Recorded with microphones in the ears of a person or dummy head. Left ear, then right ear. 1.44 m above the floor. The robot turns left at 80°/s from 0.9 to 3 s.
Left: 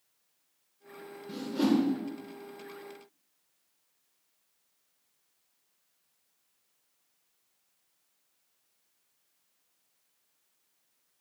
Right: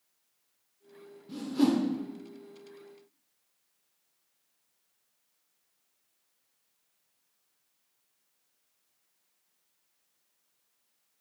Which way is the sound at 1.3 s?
10° left (ahead or behind).